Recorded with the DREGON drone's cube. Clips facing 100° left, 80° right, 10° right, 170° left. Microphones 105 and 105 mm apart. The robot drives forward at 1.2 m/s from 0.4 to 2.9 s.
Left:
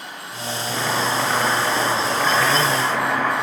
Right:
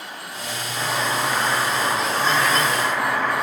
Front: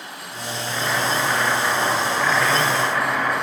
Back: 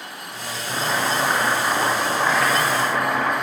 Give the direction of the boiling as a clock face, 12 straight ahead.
8 o'clock.